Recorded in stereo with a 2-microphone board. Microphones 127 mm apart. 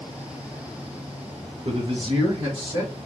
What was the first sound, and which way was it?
A man speaking, 60° right (ahead or behind).